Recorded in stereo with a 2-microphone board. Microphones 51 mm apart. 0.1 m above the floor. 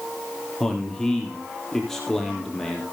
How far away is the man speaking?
About 3.5 m.